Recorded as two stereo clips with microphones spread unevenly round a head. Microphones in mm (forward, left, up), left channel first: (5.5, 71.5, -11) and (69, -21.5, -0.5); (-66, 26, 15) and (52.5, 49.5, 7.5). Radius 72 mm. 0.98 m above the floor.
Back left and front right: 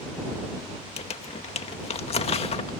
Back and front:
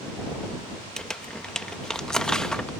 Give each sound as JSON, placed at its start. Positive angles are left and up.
{"t": 1.0, "sound": "crumpling", "azimuth_deg": 105}